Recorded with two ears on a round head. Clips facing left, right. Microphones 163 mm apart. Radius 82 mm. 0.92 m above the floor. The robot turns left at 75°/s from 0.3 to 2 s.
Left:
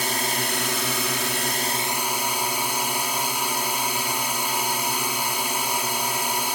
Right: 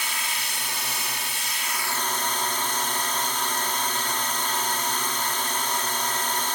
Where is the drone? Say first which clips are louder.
Left 8 dB; 140° left; by 6.5 s 10° left.